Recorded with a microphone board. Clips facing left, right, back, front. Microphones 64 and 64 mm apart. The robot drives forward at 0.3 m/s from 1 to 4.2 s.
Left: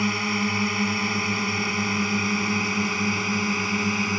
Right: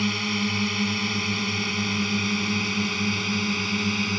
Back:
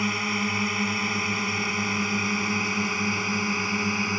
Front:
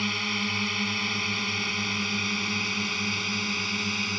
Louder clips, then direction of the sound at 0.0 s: Left 2 dB, back 3 dB; 130° left.